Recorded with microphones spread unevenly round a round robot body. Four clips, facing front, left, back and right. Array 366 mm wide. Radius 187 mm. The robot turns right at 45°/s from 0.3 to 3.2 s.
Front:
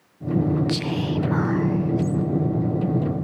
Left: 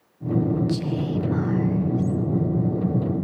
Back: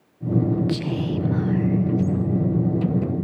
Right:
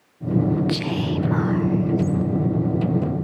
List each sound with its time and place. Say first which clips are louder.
0.7 s whispering: right 1 dB, even; 75° right, 0.8 m; by 2.2 s 10° right, 0.8 m